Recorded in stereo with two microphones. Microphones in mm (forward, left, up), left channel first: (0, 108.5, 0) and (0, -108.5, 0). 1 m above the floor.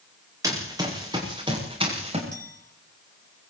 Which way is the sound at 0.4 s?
15° right (ahead or behind).